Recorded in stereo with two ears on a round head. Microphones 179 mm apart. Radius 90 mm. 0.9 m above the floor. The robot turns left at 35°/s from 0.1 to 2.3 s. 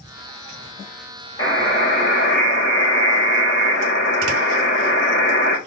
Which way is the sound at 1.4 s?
165° left.